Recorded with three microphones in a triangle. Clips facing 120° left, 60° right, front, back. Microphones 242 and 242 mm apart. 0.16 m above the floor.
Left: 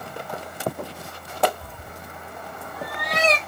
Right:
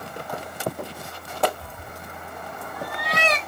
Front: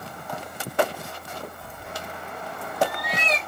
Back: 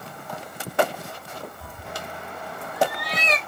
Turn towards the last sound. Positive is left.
turn(degrees=180)